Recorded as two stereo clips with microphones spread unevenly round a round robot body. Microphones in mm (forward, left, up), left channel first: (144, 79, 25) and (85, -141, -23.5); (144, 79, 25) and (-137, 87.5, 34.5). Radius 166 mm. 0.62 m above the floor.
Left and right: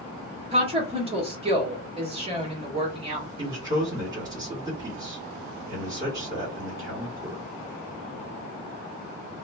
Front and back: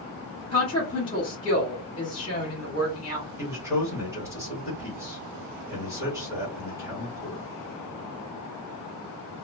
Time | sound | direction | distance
0.5 | a woman speaking | 65° right | 1.2 m
3.4 | a man speaking | 105° right | 1.3 m